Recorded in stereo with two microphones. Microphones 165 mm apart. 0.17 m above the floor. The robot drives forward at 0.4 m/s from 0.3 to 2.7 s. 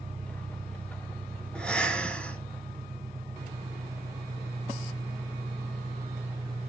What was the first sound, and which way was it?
An engine running, 45° right (ahead or behind).